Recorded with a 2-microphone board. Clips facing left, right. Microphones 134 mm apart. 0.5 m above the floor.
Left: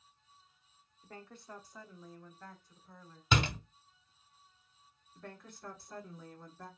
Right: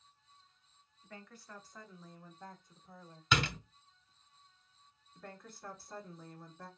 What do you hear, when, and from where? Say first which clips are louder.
1.0 s a woman speaking: left 2 dB; 35° left (ahead or behind), 0.8 m; by 3.2 s 30° right (ahead or behind), 1.3 m
3.3 s a door slam: left 1 dB; 25° left (ahead or behind), 0.9 m
5.2 s a woman speaking: left 1 dB; 5° right (ahead or behind), 1.4 m